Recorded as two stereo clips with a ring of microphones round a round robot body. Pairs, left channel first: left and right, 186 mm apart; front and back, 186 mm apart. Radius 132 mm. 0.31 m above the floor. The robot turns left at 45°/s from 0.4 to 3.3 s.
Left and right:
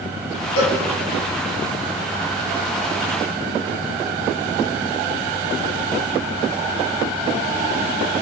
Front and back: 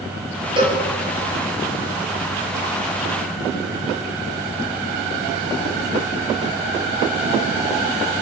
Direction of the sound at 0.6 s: 115° left.